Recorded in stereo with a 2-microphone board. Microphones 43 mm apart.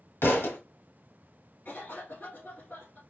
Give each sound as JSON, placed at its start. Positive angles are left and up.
{"t": 0.2, "sound": "a thud", "side_deg": 65, "distance_m": 1.7}
{"t": 1.6, "sound": "a cough", "side_deg": 45, "distance_m": 1.8}